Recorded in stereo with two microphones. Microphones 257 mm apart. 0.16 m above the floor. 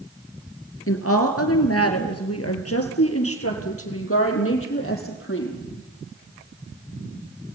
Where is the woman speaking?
60° left (ahead or behind), 3 m; by 5.7 s 50° left (ahead or behind), 6.5 m.